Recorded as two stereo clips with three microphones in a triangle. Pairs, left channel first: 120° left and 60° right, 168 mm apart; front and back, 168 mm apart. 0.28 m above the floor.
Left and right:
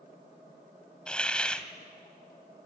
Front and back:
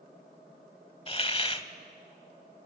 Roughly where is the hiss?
Ahead left.